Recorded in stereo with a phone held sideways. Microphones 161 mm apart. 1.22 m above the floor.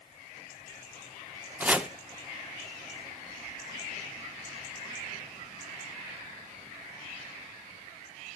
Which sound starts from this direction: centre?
Chopping, at 1.6 s.